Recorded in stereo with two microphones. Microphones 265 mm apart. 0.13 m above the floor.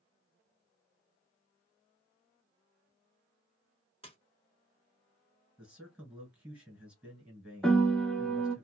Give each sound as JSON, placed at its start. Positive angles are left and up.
{"t": 4.0, "sound": "a splash", "side_deg": 20, "distance_m": 1.0}
{"t": 5.6, "sound": "a man speaking", "side_deg": -5, "distance_m": 1.6}
{"t": 7.6, "sound": "a piano", "side_deg": 5, "distance_m": 0.7}